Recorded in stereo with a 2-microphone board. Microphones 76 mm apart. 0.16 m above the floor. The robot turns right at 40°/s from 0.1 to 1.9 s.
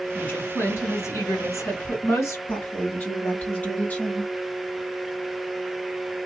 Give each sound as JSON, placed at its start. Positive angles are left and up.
{"t": 0.1, "sound": "a woman speaking", "azimuth_deg": 30, "distance_m": 2.0}
{"t": 2.5, "sound": "a woman speaking", "side_deg": 25, "distance_m": 1.8}